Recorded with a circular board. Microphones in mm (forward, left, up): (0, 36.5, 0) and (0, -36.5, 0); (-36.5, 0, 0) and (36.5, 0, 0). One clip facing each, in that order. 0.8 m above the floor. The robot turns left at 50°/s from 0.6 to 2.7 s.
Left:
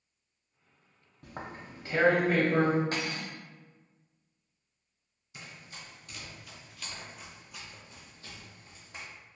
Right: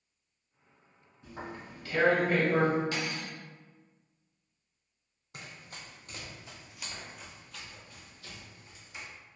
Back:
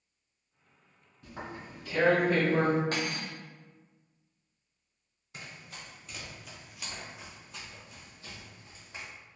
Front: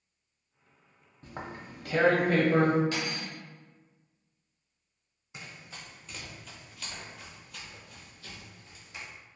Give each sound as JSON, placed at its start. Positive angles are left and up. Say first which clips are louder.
{"t": 1.2, "sound": "tearing paper", "louder": "even, front 1 dB", "azimuth_deg": 55, "distance_m": 0.6}
{"t": 2.9, "sound": "cutlery clinking", "louder": "left 1 dB, back 1 dB", "azimuth_deg": 135, "distance_m": 0.5}
{"t": 5.3, "sound": "running footsteps", "louder": "right 1 dB, even", "azimuth_deg": -80, "distance_m": 1.3}